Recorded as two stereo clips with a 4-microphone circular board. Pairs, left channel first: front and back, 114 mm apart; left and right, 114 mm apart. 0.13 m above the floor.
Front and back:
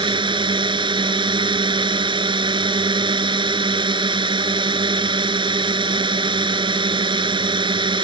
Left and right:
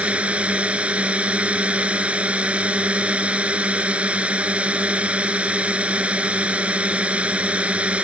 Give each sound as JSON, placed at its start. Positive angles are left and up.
{"t": 0.0, "sound": "a drone", "azimuth_deg": -165}